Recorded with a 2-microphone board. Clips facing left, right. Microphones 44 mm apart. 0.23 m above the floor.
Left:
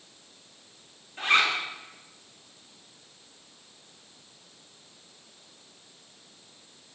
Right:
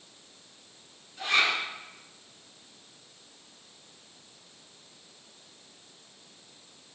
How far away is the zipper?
About 2.5 m.